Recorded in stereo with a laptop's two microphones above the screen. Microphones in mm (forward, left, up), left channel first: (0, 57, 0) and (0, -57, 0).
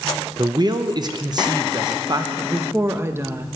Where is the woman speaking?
20° right (ahead or behind), 1.0 m.